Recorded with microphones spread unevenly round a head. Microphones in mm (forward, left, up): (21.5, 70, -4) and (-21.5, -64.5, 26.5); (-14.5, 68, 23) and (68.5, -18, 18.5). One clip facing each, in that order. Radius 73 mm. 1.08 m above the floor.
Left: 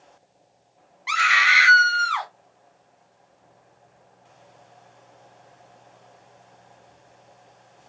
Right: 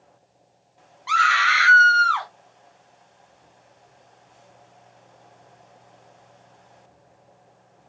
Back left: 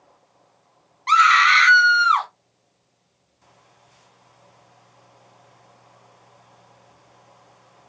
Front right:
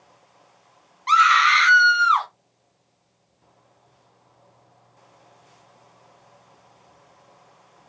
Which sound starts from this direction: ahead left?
A scream, at 1.1 s.